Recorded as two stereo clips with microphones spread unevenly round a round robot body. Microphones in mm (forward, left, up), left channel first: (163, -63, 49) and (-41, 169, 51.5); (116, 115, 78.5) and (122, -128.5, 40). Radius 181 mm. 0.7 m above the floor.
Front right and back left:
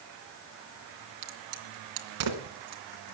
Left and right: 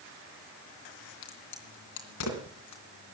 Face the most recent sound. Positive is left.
turn(degrees=115)